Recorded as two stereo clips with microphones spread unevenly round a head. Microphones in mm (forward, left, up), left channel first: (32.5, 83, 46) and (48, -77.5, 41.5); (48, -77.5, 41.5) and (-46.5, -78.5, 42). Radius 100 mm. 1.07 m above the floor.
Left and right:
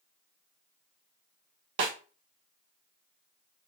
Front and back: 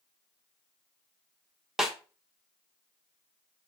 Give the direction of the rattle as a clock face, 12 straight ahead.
I don't hear a rattle.